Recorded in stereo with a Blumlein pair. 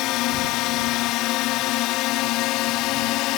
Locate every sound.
0.0 s a drone: 40° left